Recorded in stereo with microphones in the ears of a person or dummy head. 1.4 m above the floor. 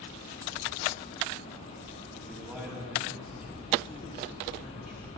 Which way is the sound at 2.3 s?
5° left (ahead or behind).